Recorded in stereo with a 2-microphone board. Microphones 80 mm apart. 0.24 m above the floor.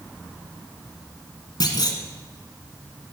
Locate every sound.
1.6 s a clunk: 65° left (ahead or behind), 1.1 m